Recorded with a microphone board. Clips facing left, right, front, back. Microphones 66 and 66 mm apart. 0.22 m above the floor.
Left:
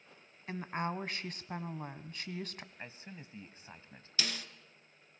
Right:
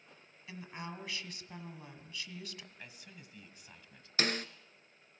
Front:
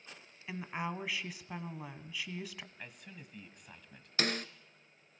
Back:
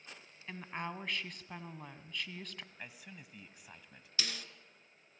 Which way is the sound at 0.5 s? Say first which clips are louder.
Left 8 dB, front 3 dB; 80° left.